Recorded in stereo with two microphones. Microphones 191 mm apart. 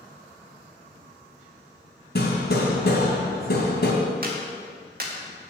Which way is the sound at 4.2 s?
55° right (ahead or behind).